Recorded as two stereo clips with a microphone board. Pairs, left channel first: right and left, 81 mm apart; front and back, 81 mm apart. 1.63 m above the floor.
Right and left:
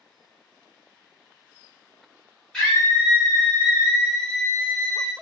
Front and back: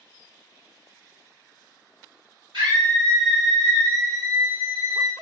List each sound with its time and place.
2.5 s a scream: 170° right, 1.6 m